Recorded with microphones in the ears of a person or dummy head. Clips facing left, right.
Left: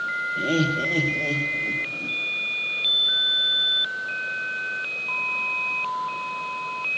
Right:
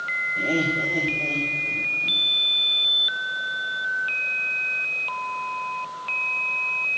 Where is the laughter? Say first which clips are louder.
Left 1 dB; 10° left (ahead or behind), 0.9 m; by 2.2 s 70° left (ahead or behind), 2 m.